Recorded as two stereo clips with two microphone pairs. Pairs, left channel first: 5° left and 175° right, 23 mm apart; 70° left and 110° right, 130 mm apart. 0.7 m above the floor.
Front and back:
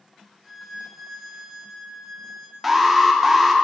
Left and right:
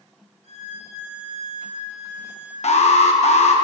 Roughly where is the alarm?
Left.